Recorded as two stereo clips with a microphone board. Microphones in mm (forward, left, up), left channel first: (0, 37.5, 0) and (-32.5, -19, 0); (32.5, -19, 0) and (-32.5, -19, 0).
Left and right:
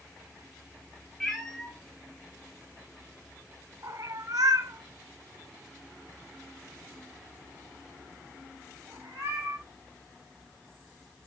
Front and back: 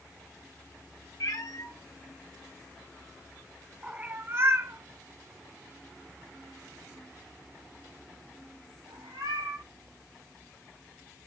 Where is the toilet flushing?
I don't hear a toilet flushing.